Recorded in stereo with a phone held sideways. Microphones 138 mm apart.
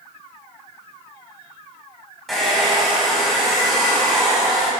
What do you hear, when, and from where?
2.3 s a hair dryer: centre (ahead or behind), 2.5 m